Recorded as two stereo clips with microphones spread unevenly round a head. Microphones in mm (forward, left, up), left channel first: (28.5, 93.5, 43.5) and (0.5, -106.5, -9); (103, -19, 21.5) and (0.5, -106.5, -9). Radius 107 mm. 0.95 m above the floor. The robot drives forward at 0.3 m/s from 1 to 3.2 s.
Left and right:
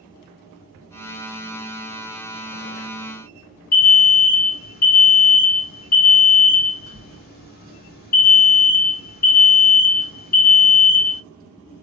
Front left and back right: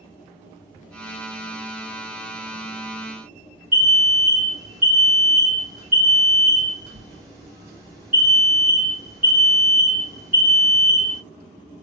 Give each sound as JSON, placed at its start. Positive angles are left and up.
{"t": 3.7, "sound": "an alarm", "azimuth_deg": 135, "distance_m": 1.0}